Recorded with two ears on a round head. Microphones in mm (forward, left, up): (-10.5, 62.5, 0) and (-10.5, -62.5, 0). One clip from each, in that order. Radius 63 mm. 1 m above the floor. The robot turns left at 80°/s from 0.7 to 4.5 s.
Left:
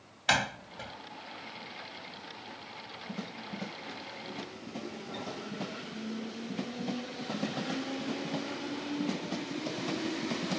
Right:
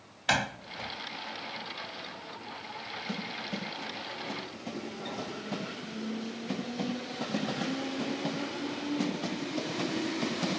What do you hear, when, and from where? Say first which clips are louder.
0.3 s a door slam: even; 20° left (ahead or behind); by 1.0 s 45° left (ahead or behind)